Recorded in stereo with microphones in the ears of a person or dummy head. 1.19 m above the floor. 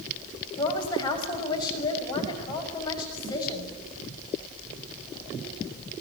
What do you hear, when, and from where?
0.6 s a woman speaking: 25° left (ahead or behind), 6.5 m